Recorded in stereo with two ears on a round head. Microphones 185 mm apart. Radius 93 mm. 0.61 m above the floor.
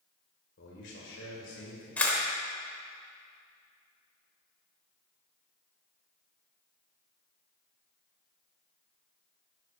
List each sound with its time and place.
0.6 s a man speaking: 60° left (ahead or behind), 1.9 m; by 1.9 s 70° left (ahead or behind), 3 m
2.0 s a camera shutter: 5° left (ahead or behind), 1.2 m